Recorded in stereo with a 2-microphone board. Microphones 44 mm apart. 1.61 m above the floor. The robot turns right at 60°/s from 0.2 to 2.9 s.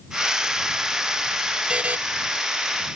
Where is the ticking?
No ticking in this recording.